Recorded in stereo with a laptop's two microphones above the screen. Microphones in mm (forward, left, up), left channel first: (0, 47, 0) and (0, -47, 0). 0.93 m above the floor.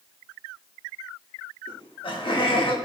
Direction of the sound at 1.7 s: 65° left (ahead or behind).